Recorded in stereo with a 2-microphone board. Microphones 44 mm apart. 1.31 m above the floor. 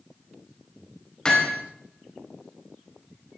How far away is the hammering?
About 4 m.